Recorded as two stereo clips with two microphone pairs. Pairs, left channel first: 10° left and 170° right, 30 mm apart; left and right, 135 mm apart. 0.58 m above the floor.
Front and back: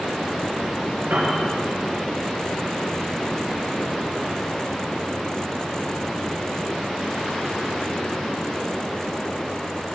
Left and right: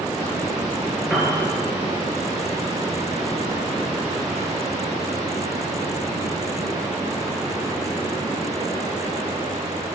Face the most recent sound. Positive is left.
turn(degrees=-175)